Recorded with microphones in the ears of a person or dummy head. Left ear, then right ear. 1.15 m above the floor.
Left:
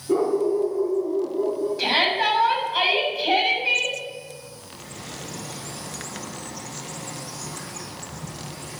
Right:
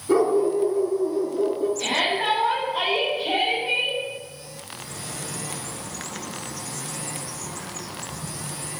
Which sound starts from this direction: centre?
A bird, at 4.7 s.